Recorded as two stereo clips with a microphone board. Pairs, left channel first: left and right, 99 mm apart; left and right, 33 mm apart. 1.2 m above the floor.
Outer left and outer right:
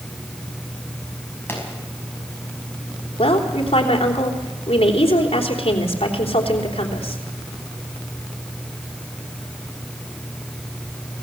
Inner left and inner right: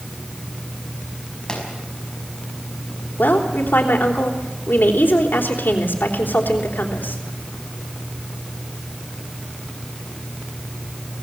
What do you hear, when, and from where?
1.5 s a pop: 25° left (ahead or behind), 5.5 m
3.2 s a woman speaking: 85° left, 3.5 m